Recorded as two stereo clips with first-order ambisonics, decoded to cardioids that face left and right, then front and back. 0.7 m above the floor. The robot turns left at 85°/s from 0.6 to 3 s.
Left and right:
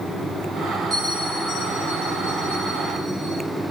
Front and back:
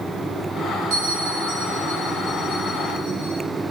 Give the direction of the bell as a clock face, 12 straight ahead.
5 o'clock.